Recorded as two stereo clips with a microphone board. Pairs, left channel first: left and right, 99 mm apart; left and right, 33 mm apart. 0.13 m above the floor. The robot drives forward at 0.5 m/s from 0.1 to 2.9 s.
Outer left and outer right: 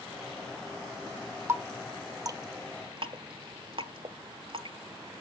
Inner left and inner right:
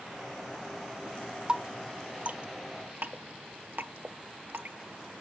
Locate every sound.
1.5 s dripping: 25° right (ahead or behind), 1.0 m; by 4.8 s 60° right (ahead or behind), 0.5 m